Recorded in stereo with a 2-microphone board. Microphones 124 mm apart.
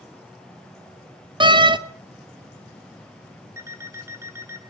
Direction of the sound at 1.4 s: 40° right (ahead or behind).